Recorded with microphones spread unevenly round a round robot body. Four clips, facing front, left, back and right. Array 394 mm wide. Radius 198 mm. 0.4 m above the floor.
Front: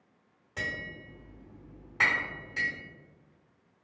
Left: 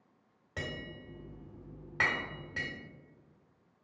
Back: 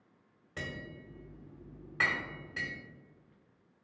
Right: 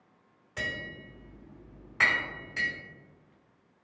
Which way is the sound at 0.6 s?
125° left.